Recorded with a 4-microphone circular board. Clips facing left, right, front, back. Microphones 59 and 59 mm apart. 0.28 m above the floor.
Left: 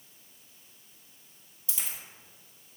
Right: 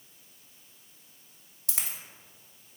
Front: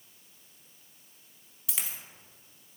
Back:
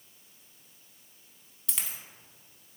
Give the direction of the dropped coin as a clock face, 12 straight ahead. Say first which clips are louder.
Right 2 dB, even; 3 o'clock.